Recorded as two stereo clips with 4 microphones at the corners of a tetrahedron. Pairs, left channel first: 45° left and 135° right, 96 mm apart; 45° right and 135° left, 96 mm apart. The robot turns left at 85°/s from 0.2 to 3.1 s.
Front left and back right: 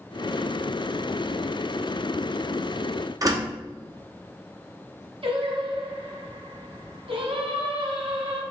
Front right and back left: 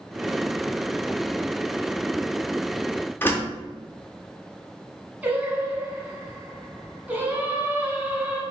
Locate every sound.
3.2 s a door slam: 100° right, 0.8 m
5.2 s singing: 155° right, 1.1 m